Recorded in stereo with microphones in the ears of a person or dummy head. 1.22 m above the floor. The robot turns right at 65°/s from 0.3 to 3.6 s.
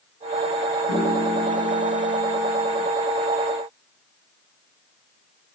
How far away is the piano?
About 3 m.